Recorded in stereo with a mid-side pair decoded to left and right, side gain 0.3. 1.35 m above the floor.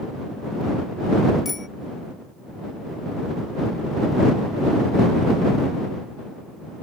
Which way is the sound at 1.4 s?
40° left.